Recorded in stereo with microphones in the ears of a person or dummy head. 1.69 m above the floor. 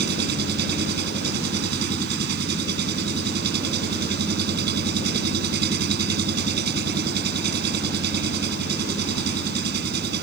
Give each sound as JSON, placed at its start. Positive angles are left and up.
{"t": 0.0, "sound": "an engine running", "side_deg": -70}